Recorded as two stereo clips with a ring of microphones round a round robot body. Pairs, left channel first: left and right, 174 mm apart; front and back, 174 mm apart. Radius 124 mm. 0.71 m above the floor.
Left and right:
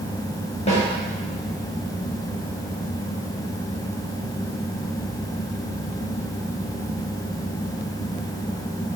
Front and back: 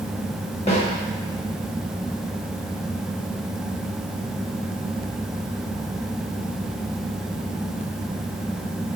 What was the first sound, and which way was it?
A snare drum, 45° left.